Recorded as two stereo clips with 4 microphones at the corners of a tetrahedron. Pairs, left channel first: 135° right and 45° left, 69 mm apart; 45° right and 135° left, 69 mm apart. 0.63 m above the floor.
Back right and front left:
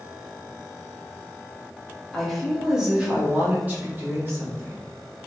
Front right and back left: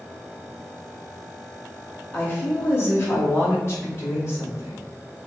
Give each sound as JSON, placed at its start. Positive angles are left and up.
{"t": 2.1, "sound": "a woman speaking", "azimuth_deg": -60, "distance_m": 1.0}